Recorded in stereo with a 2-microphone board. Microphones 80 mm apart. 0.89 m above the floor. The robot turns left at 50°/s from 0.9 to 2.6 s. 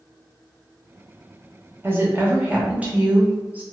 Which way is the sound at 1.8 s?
30° right (ahead or behind).